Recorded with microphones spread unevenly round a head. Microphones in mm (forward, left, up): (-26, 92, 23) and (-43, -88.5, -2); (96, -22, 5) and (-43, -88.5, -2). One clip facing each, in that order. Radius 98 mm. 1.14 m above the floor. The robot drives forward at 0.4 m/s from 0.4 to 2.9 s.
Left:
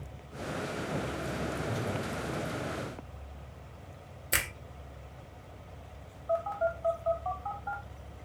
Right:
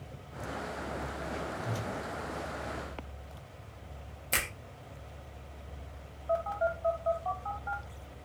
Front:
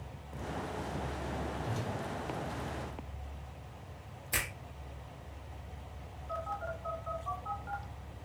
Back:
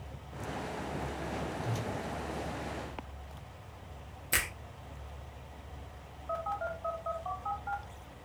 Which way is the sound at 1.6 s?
155° right.